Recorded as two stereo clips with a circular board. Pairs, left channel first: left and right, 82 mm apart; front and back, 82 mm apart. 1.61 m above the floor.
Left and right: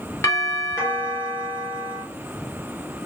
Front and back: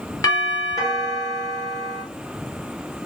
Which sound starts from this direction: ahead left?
A doorbell, at 0.2 s.